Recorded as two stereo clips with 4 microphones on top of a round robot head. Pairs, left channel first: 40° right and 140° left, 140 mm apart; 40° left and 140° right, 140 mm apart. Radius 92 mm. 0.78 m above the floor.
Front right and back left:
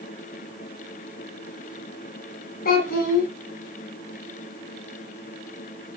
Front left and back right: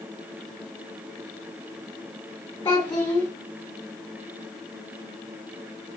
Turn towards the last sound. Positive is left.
turn(degrees=-30)